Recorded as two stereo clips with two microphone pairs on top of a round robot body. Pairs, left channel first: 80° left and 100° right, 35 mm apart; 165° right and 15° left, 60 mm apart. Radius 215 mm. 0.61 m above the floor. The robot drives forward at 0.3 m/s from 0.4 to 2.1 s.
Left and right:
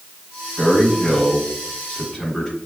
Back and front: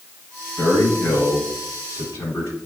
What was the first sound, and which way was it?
A man speaking, 160° left.